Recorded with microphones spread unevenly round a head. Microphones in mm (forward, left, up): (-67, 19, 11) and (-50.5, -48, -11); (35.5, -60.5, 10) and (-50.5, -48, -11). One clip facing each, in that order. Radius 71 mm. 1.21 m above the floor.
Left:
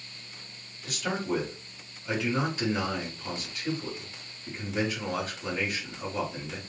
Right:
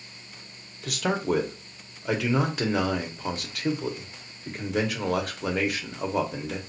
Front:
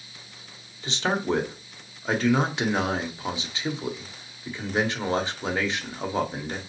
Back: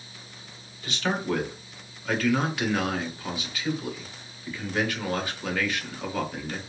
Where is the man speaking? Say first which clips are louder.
Right 5 dB, front 2 dB; 80° right, 1.0 m.